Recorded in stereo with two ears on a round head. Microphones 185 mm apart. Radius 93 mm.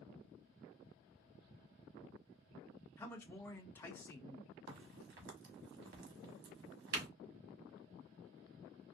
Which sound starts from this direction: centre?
A man speaking, at 3.0 s.